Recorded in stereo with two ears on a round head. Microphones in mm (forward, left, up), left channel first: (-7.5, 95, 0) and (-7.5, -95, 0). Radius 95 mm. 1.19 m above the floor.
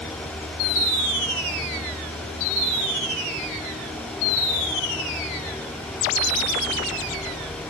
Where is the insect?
10° left (ahead or behind).